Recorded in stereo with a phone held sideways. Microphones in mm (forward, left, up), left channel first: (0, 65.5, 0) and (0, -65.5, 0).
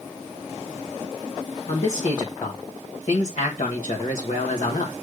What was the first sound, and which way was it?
A man speaking, 70° left (ahead or behind).